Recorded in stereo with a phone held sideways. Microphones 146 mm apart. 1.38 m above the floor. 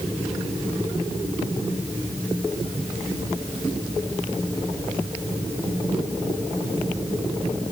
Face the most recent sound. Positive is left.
No sound to turn to.